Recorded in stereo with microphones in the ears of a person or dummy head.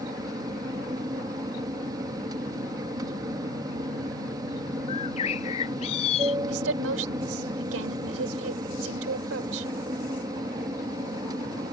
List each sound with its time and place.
0.0 s an aircraft: 25° right (ahead or behind)
4.9 s a bird: 35° left (ahead or behind)
6.5 s a woman speaking: 85° right